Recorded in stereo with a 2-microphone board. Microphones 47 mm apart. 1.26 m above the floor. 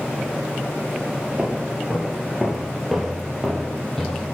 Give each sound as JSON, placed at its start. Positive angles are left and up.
{"t": 1.4, "sound": "footsteps", "side_deg": -20, "distance_m": 1.2}